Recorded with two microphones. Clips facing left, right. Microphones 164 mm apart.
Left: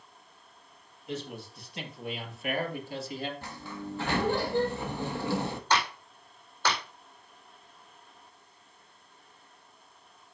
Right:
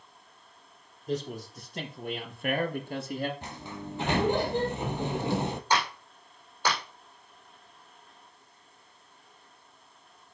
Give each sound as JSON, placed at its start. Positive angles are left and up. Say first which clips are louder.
{"t": 1.1, "sound": "a man speaking", "louder": "right 5 dB", "side_deg": -40, "distance_m": 3.5}
{"t": 3.4, "sound": "a sliding door", "louder": "even", "side_deg": -20, "distance_m": 0.9}
{"t": 5.7, "sound": "a clap", "louder": "even", "side_deg": -10, "distance_m": 4.5}